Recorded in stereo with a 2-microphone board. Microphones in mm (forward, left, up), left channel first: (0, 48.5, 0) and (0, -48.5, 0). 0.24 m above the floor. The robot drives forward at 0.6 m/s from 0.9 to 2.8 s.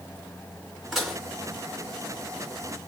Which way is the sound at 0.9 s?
Centre (ahead or behind).